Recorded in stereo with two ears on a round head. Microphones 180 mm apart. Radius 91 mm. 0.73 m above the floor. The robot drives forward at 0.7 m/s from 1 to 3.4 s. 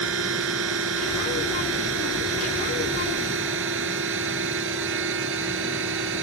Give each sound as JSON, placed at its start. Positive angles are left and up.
{"t": 0.0, "sound": "a drone", "side_deg": -75}